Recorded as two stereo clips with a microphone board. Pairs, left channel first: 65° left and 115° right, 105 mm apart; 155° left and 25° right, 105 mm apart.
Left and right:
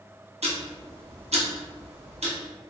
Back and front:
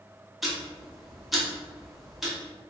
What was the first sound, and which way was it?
Ticking, 110° right.